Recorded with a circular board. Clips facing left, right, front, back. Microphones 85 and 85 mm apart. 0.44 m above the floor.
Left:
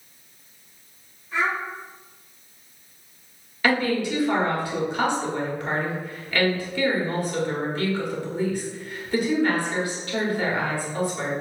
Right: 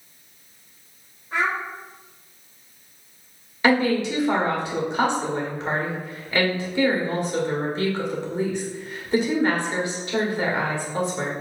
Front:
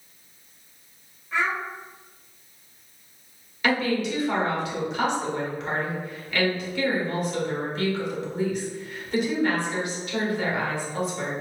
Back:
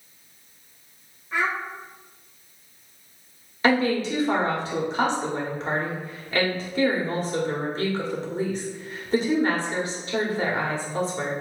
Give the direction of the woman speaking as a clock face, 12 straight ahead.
5 o'clock.